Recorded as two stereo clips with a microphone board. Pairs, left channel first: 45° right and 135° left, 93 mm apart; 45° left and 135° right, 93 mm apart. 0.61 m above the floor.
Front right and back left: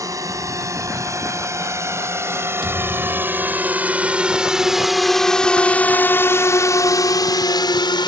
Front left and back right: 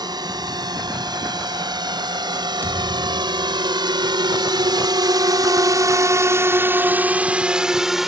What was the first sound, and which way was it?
A drone, 175° right.